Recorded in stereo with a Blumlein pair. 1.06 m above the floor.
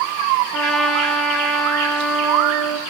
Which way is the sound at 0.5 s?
20° right.